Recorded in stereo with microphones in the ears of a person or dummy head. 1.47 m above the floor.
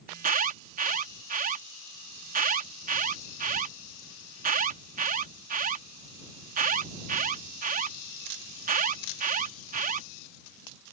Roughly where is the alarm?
Right.